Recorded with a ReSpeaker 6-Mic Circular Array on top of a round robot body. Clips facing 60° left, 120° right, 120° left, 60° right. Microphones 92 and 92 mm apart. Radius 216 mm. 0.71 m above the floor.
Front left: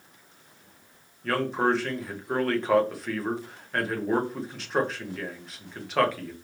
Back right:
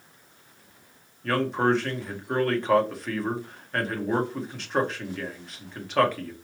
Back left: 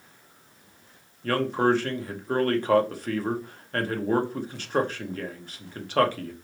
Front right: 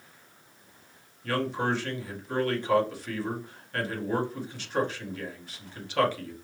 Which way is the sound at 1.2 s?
150° left.